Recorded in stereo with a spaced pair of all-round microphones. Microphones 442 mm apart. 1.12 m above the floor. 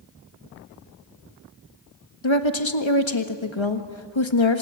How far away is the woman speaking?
About 1.6 m.